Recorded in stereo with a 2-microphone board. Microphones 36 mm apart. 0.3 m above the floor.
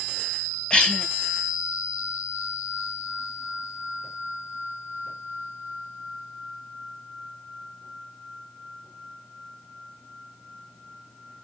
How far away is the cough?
About 1.1 m.